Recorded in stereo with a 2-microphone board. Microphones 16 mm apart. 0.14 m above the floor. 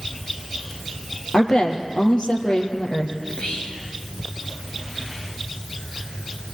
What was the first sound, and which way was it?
A woman speaking, 70° left (ahead or behind).